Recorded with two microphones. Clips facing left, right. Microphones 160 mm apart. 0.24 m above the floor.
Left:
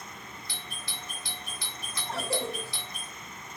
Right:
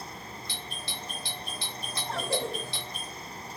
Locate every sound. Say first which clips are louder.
0.5 s a doorbell: right 3 dB; 25° right (ahead or behind), 4 m
2.1 s a cough: right 1 dB; centre (ahead or behind), 1.3 m